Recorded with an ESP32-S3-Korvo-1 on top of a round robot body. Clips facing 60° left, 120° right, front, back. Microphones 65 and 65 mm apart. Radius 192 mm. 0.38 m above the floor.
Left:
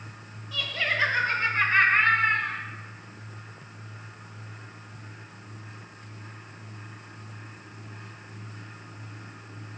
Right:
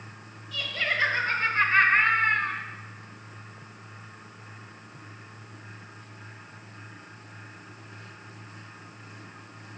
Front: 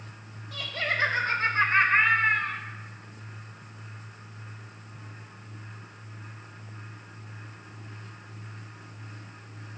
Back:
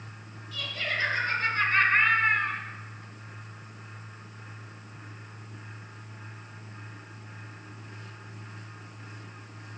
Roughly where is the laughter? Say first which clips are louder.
Left 1 dB, front 2 dB; ahead.